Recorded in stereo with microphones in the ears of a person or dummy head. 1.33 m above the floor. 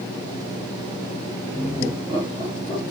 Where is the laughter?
35° left (ahead or behind), 1.1 m; by 2.8 s 30° left (ahead or behind), 2.5 m.